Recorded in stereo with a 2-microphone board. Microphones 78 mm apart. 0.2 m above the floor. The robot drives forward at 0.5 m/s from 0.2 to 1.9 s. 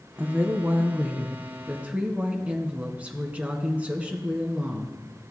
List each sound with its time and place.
0.2 s a woman speaking: 25° right (ahead or behind), 1.1 m; by 5.0 s 15° right (ahead or behind), 1.6 m